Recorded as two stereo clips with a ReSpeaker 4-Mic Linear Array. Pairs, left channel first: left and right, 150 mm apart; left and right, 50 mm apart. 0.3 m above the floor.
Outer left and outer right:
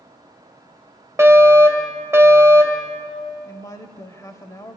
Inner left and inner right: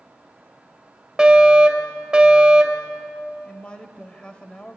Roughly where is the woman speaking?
Left.